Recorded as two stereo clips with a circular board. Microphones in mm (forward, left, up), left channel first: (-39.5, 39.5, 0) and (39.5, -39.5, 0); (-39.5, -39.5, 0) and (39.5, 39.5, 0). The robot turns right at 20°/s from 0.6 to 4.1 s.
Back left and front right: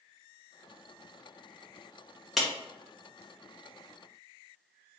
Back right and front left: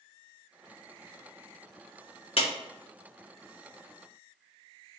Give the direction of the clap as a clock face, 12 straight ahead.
4 o'clock.